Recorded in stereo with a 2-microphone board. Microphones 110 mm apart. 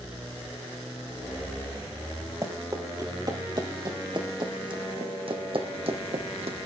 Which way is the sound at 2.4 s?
35° right (ahead or behind).